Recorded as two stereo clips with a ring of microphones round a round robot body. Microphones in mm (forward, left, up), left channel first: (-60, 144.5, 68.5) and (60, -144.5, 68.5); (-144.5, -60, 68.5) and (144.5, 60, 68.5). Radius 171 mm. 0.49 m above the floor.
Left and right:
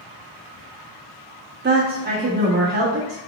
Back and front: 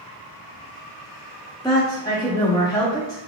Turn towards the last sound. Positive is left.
turn(degrees=-90)